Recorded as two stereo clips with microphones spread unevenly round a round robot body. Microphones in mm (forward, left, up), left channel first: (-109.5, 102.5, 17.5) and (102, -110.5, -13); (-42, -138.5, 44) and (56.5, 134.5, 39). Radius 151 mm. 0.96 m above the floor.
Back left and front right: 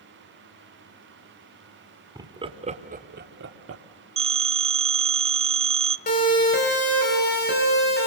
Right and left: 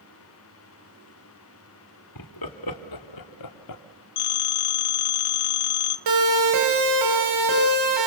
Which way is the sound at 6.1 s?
70° left.